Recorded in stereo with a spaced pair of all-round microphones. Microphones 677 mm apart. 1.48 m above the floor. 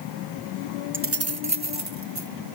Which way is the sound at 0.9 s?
20° right (ahead or behind).